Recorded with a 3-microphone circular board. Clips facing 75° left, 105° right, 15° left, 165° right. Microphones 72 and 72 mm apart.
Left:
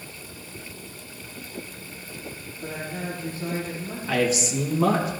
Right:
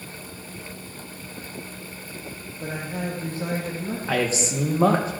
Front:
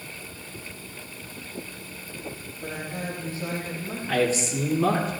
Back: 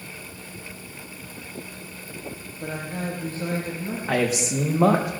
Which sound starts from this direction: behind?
A man speaking, at 4.1 s.